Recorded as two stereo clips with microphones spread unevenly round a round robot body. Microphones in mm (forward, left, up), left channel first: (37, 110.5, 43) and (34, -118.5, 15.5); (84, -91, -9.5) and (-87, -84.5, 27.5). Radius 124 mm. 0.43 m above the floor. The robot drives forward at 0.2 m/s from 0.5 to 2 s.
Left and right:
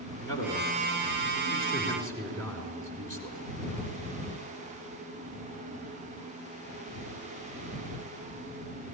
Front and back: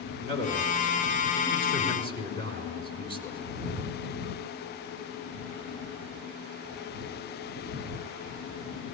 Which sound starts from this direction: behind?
A man speaking, at 0.2 s.